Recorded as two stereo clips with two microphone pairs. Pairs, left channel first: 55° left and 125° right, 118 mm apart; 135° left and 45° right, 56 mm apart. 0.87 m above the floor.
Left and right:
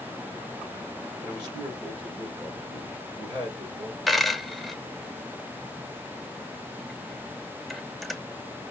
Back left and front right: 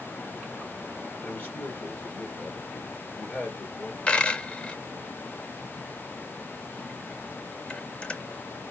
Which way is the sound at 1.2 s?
170° right.